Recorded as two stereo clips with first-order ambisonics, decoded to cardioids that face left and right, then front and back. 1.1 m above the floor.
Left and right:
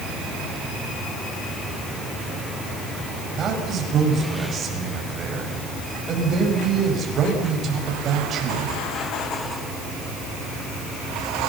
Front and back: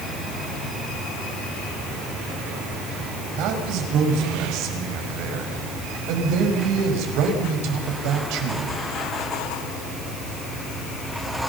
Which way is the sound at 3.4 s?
150° right.